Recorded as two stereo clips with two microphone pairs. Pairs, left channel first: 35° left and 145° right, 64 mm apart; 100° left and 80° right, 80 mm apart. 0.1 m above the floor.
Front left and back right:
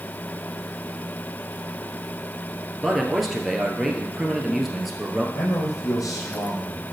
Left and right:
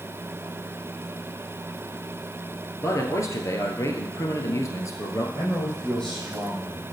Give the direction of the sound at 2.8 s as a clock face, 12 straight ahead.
8 o'clock.